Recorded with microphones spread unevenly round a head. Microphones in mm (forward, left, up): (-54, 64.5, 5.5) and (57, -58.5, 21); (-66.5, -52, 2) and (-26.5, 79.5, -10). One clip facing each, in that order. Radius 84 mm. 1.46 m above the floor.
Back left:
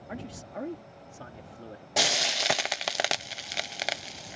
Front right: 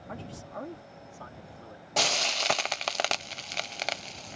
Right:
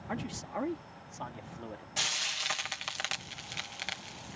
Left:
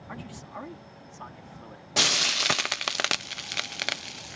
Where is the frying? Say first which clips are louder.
Even, left 11 dB; 50° left.